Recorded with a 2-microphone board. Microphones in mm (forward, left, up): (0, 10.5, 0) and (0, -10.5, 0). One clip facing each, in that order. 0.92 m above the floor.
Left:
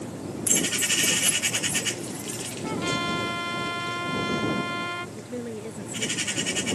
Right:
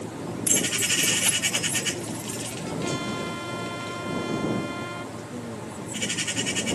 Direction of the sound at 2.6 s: 30° left (ahead or behind).